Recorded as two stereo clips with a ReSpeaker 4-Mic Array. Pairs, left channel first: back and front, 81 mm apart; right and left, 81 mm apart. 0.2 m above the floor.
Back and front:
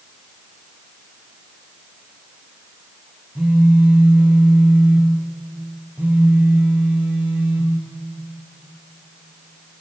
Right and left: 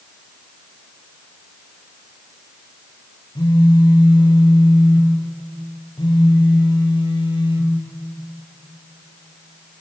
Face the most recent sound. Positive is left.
turn(degrees=-75)